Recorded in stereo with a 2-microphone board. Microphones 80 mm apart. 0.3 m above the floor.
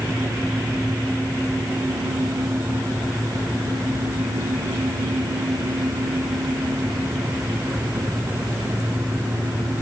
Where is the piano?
No piano in this recording.